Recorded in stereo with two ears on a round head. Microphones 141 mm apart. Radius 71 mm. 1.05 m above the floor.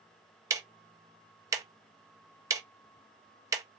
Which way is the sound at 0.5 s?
20° right (ahead or behind).